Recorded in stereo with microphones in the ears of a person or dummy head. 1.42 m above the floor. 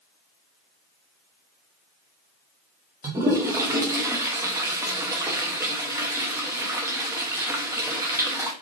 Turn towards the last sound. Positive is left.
turn(degrees=-10)  # may be behind; listen again after turning